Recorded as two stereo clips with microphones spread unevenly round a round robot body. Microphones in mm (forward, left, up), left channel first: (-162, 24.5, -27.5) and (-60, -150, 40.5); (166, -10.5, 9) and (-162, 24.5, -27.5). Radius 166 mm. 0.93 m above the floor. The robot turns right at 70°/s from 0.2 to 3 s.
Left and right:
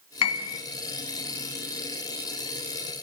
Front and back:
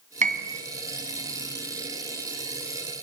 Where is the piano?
105° left, 1.8 m; by 0.6 s 130° left, 1.8 m.